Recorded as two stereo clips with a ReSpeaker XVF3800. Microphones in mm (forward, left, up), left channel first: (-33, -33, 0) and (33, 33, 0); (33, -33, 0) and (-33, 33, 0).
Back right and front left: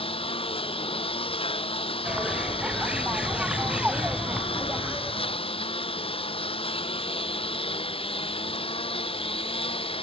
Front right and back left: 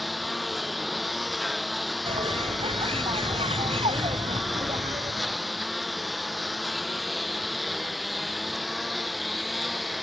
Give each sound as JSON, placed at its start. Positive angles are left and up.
{"t": 0.0, "sound": "a lawn mower", "azimuth_deg": -135}
{"t": 2.0, "sound": "a bird", "azimuth_deg": 125}